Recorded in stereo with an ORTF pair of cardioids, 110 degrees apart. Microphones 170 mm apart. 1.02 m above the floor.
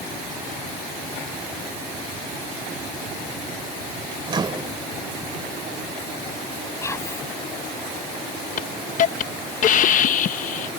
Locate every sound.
4.3 s a microwave: 25° right
6.8 s whispering: 15° left
8.6 s a hiss: 50° left